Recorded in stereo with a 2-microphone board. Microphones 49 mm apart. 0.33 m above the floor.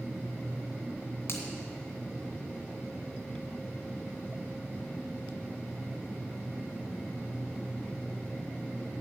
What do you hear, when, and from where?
1.3 s a finger snap: 55° left (ahead or behind), 1.9 m